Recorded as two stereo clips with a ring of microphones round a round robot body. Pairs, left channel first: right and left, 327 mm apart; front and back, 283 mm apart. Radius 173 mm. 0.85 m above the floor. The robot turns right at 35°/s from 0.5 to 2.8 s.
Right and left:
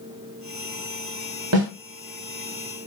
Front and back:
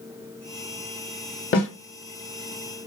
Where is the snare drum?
45° left, 1.2 m; by 1.7 s 50° left, 1.2 m.